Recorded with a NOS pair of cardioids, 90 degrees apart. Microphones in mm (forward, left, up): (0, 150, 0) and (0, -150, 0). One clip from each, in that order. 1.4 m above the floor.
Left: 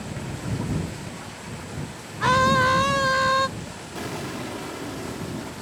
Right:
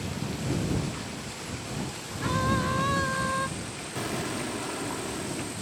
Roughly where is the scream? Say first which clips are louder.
Left 10 dB; left.